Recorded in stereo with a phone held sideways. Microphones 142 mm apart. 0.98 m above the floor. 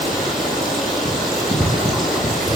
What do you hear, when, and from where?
0.0 s running water: centre (ahead or behind), 9.5 m